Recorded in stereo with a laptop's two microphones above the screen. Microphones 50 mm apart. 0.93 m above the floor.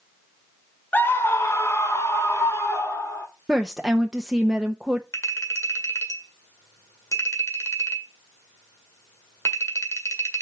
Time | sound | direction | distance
0.9 | a scream | 35° left (ahead or behind) | 1.0 m
3.5 | a woman speaking | 10° right (ahead or behind) | 0.9 m
5.1 | a clink | 80° left | 1.6 m